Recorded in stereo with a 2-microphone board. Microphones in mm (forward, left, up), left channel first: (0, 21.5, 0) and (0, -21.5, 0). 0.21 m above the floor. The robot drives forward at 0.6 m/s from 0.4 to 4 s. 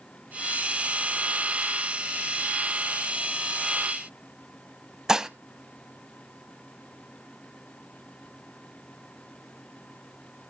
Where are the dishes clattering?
15° right (ahead or behind), 0.7 m.